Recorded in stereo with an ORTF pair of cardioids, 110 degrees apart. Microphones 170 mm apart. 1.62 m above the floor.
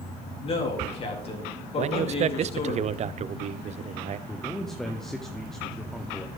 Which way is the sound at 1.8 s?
40° right.